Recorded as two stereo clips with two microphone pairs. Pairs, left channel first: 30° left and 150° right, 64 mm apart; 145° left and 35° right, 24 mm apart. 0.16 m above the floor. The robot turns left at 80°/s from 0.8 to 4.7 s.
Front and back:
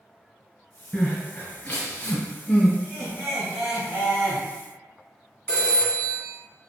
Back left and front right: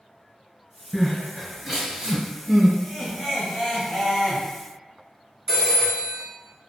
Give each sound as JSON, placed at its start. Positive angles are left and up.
{"t": 0.9, "sound": "crying", "azimuth_deg": 90, "distance_m": 1.2}
{"t": 2.8, "sound": "laughter", "azimuth_deg": -160, "distance_m": 1.4}
{"t": 5.5, "sound": "a phone ringing", "azimuth_deg": 20, "distance_m": 0.9}